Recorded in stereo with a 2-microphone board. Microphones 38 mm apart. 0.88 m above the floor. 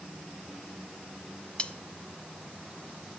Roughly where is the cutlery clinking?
Left.